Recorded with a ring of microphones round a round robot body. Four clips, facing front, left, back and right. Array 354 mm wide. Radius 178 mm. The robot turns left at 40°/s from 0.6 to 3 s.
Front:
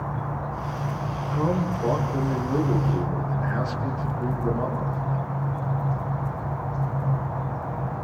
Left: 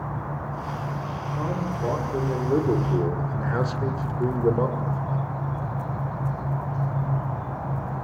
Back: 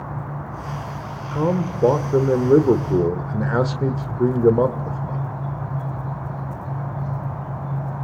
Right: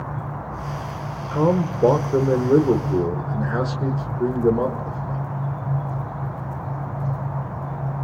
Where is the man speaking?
110° right, 1.6 m; by 5.2 s straight behind, 1.6 m.